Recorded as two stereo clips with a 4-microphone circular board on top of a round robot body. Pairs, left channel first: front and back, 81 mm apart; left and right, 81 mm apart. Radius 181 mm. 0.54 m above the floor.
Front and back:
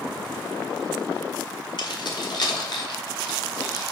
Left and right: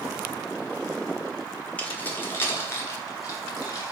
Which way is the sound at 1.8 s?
20° left.